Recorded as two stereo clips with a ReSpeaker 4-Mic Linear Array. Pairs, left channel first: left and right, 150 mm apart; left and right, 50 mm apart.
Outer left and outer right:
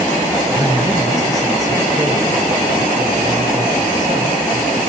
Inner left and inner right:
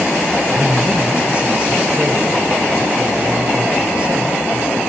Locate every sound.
0.5 s a man speaking: 25° right (ahead or behind), 3.5 m